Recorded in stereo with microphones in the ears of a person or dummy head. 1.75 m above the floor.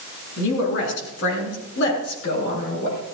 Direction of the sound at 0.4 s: 70° left (ahead or behind).